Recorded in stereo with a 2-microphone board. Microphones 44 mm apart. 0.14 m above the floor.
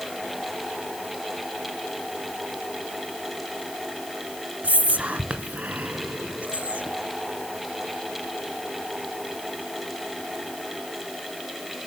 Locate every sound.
4.6 s whispering: 35° right (ahead or behind), 1.3 m